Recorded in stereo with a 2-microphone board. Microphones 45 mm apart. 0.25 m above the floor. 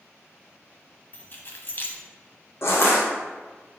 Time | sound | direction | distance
1.1 | keys jangling | 45° left (ahead or behind) | 1.3 m
2.6 | crushing | 60° left (ahead or behind) | 3 m